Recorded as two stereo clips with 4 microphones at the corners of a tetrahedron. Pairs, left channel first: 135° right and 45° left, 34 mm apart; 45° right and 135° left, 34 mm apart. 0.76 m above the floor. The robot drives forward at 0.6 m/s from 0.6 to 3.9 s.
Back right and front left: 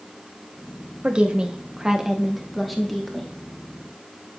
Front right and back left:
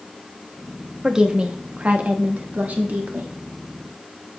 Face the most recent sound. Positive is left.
turn(degrees=155)